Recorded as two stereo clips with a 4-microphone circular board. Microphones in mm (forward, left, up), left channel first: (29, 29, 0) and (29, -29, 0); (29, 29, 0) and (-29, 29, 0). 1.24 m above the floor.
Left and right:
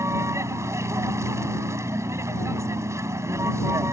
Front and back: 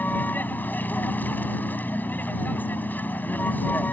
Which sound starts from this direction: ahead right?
A vehicle, at 0.0 s.